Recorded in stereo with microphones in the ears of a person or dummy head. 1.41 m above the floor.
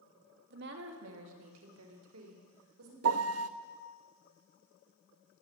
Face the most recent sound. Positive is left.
turn(degrees=-75)  # may be behind; listen again after turning